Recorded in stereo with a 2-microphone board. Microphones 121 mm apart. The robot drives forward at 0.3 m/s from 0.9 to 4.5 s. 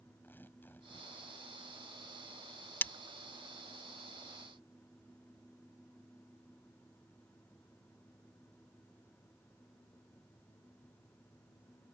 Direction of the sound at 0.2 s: 15° left (ahead or behind).